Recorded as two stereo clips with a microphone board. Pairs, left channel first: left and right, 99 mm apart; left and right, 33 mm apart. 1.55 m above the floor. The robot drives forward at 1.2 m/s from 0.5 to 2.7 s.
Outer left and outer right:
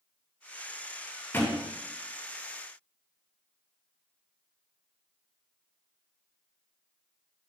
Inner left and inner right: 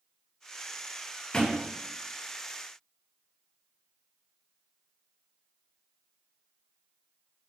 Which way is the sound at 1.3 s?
20° left (ahead or behind).